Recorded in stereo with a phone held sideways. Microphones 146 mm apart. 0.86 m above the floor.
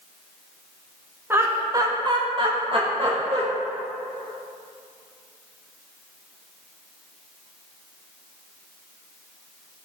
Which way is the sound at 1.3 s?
15° right (ahead or behind).